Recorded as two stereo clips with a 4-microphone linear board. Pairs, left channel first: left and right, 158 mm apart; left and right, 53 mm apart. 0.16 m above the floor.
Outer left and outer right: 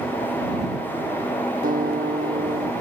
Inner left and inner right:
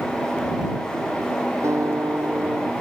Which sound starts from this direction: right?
A guitar, at 1.6 s.